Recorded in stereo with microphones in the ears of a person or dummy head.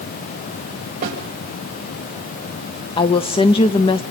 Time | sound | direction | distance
1.0 | a snare drum | 40° right (ahead or behind) | 4 m
3.0 | a woman speaking | 25° left (ahead or behind) | 0.6 m